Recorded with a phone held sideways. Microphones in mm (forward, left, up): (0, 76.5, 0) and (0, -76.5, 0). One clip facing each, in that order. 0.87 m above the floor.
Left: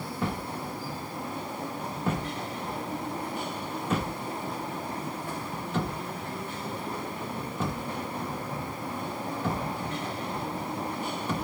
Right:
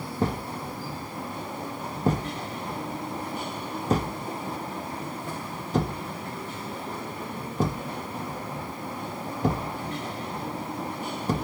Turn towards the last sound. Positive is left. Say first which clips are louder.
# right 4 dB
turn(degrees=-40)  # may be behind; listen again after turning